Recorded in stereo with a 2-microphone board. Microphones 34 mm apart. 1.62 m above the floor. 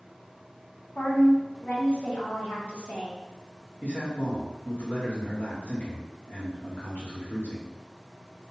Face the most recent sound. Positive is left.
turn(degrees=65)  # may be behind; listen again after turning